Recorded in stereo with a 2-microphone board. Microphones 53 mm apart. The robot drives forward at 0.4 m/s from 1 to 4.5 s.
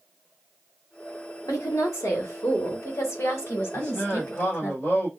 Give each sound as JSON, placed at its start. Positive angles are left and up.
{"t": 1.4, "sound": "a woman speaking", "side_deg": 80, "distance_m": 1.7}
{"t": 3.7, "sound": "a man speaking", "side_deg": 35, "distance_m": 4.0}